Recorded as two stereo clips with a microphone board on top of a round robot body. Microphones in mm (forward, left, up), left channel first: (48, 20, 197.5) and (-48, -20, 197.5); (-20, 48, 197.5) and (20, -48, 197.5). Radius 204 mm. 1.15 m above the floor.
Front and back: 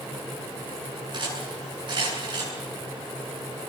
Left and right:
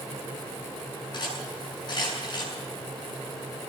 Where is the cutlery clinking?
160° left, 8 m.